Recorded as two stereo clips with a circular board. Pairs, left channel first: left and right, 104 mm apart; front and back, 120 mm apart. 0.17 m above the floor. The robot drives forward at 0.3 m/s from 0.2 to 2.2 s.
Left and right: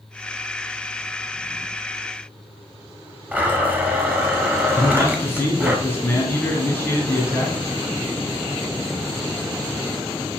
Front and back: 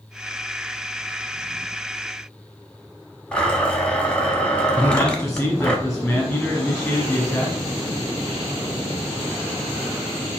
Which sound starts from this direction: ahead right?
A blender, at 3.3 s.